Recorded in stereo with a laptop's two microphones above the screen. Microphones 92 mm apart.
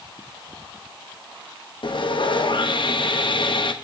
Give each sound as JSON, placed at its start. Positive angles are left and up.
{"t": 1.8, "sound": "sawing", "side_deg": 60, "distance_m": 0.8}